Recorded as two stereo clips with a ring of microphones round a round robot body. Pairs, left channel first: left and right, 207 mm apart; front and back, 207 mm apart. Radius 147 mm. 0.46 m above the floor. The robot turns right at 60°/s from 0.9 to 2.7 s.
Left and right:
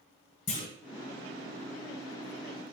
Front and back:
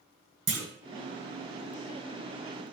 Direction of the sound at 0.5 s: 155° left.